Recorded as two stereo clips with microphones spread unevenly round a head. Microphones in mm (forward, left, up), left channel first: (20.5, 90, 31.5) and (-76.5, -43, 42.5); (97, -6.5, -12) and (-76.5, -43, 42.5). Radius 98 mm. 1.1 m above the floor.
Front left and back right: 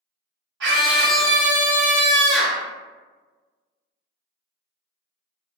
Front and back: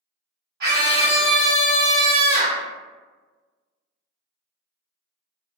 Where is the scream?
130° right, 1.3 m.